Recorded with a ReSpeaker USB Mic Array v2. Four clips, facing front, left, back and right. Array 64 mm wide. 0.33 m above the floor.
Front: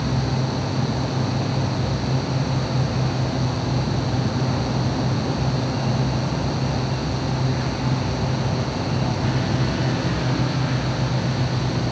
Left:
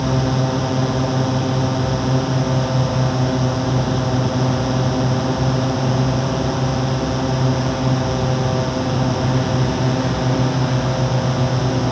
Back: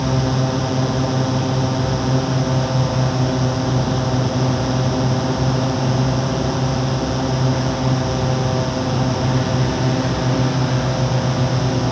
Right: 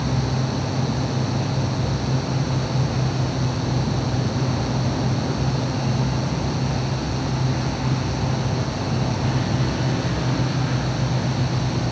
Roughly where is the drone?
Behind left.